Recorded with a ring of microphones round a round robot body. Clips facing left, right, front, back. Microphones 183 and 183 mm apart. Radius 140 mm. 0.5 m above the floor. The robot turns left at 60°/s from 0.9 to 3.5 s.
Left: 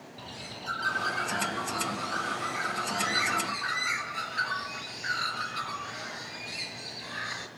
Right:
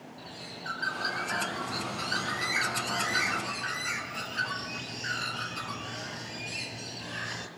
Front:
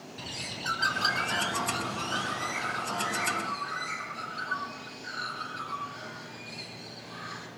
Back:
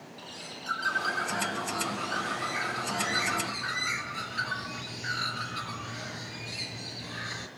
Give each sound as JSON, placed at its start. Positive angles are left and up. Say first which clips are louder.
{"t": 0.2, "sound": "a bird", "louder": "left 2 dB, front 5 dB", "azimuth_deg": 10, "distance_m": 4.0}